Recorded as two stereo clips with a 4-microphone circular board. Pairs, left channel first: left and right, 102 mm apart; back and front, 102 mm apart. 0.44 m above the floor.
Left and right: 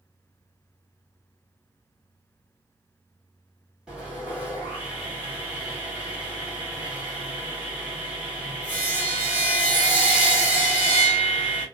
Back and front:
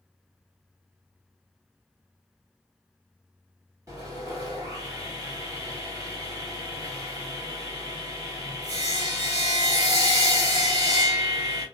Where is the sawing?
15° right, 1.5 m.